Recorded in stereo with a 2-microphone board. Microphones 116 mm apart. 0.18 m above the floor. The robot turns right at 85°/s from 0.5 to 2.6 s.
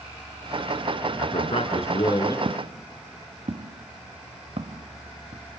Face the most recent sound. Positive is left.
turn(degrees=-45)  # may be behind; listen again after turning